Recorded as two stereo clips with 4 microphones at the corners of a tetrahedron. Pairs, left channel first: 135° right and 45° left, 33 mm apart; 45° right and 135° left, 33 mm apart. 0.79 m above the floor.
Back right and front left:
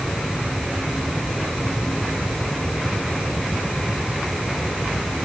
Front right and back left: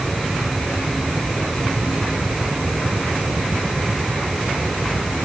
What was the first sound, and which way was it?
Only background noise.